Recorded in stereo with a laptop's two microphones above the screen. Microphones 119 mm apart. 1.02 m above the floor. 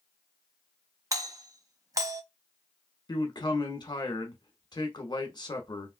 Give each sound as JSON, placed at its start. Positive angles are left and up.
{"t": 1.1, "sound": "a doorbell", "side_deg": -30, "distance_m": 0.6}
{"t": 3.1, "sound": "a man speaking", "side_deg": 35, "distance_m": 1.0}